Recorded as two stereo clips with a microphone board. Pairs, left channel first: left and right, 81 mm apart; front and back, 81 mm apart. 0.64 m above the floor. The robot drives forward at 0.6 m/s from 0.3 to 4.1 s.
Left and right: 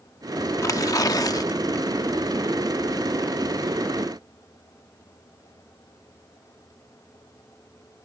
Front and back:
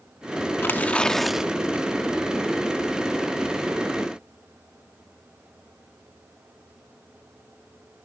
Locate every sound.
0.6 s tearing paper: 55° left; by 1.9 s 125° left